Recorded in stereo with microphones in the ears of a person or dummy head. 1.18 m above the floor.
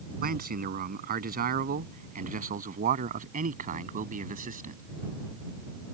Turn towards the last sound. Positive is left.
turn(degrees=-40)  # may be behind; listen again after turning